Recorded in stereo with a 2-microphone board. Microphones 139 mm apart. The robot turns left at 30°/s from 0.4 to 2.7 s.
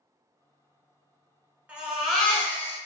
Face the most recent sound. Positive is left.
turn(degrees=160)